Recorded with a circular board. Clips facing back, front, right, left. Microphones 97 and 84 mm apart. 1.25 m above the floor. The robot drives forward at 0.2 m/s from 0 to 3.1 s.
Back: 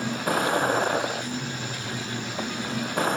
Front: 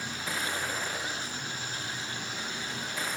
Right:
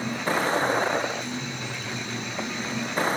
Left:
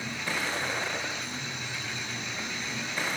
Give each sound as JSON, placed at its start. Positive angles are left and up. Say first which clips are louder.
{"t": 0.0, "sound": "a vehicle", "louder": "back 10 dB, right 8 dB", "azimuth_deg": -140}